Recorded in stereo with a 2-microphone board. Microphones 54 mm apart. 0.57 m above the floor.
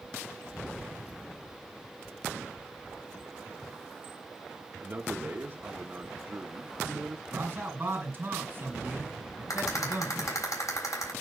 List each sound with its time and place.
4.8 s a man speaking: 40° right (ahead or behind), 1.0 m
7.3 s a man speaking: 35° right (ahead or behind), 4.5 m
9.5 s a rattle: 75° left (ahead or behind), 4 m